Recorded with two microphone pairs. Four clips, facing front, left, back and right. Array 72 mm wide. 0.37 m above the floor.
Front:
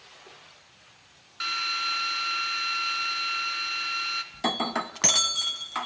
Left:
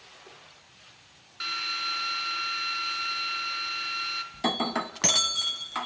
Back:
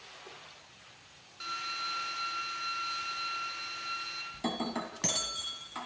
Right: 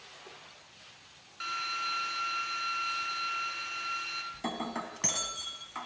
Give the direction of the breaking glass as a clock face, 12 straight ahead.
11 o'clock.